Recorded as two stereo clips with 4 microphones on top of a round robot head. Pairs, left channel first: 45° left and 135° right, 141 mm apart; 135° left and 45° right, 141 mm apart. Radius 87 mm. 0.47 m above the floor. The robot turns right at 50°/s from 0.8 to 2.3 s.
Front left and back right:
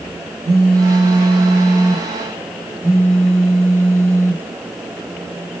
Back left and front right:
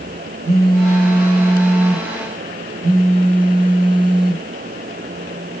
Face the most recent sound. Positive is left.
turn(degrees=-10)